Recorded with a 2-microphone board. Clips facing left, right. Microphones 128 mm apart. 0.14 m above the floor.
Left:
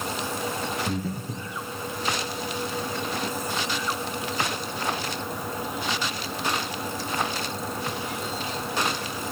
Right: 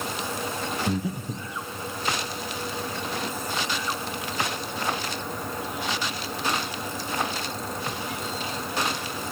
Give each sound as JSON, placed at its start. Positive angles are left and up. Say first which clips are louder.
{"t": 0.9, "sound": "breathing", "louder": "right 2 dB", "side_deg": -15, "distance_m": 1.9}